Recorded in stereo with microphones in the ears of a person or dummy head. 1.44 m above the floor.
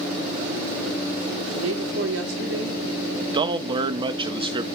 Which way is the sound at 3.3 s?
25° right (ahead or behind).